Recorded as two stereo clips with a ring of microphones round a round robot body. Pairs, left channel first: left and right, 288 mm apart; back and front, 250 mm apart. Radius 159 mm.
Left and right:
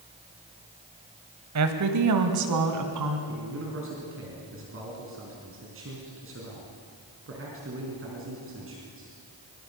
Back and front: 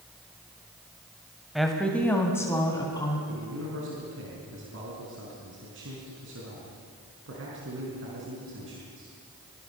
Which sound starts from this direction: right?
A woman speaking, at 1.6 s.